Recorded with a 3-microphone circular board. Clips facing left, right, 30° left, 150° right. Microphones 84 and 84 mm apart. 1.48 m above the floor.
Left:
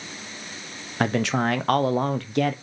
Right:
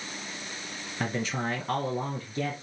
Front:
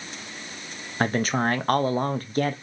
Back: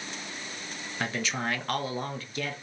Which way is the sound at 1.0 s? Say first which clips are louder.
Left 8 dB, front 8 dB; 75° left.